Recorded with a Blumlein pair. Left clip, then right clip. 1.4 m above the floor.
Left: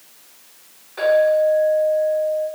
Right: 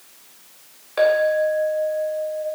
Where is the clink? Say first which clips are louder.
Left 2 dB; 25° right, 1.3 m.